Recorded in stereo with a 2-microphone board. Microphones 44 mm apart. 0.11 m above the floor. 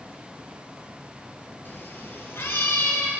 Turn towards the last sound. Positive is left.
turn(degrees=70)  # may be behind; listen again after turning